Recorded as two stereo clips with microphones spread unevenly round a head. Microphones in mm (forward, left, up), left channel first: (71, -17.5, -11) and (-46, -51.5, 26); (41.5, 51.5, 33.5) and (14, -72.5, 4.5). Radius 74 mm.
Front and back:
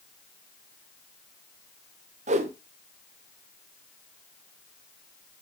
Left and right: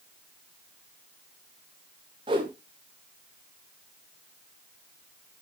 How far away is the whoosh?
About 1.2 m.